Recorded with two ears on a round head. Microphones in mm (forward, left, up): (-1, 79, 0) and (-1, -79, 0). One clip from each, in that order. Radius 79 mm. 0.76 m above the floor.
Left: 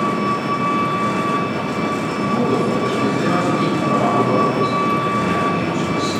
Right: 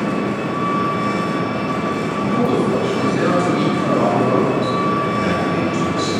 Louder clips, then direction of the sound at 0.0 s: Left 2 dB; 15° left (ahead or behind).